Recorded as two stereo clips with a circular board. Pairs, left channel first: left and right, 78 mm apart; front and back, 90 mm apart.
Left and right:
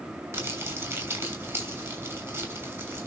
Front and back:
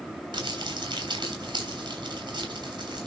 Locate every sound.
0.3 s crumpling: 145° right, 5.5 m